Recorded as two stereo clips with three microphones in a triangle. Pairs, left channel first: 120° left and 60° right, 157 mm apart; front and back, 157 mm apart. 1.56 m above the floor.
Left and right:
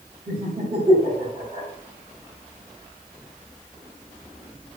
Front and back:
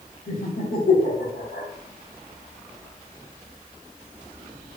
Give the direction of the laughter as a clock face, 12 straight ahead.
12 o'clock.